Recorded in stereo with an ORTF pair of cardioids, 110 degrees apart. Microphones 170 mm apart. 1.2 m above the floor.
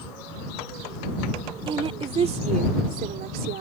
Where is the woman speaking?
30° right; by 3.6 s 65° right.